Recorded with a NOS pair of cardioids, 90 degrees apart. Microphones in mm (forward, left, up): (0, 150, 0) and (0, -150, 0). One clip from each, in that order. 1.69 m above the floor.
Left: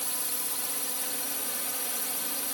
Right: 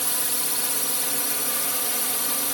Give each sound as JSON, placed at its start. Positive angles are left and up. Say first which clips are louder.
{"t": 0.0, "sound": "a drone", "louder": "right 7 dB", "azimuth_deg": -50}